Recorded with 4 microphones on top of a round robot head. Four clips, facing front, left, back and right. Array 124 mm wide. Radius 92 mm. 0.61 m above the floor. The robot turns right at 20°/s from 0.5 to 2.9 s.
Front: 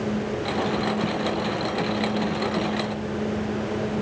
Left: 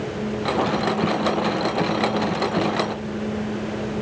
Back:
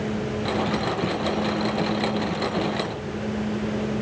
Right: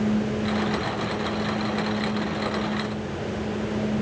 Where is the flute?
I don't hear a flute.